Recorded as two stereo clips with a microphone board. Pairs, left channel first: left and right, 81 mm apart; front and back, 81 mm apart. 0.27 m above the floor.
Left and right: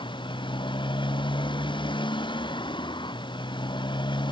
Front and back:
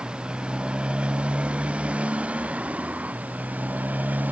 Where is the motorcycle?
100° left; by 4.3 s 110° left.